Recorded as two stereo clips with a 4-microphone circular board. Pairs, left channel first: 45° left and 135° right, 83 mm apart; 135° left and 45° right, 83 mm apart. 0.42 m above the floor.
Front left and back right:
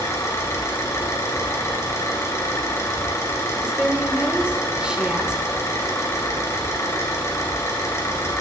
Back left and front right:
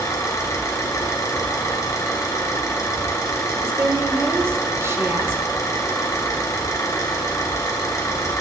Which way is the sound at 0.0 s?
90° left.